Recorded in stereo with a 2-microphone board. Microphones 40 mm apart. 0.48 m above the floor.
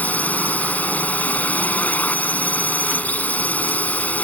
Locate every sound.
0.0 s a drone: 45° left (ahead or behind)